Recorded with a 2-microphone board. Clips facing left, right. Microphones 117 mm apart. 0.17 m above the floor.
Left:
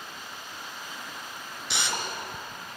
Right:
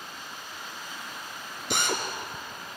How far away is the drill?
About 2 m.